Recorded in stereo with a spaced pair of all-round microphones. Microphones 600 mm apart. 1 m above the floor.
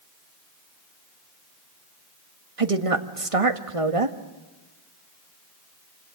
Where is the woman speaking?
60° right (ahead or behind), 1.7 m.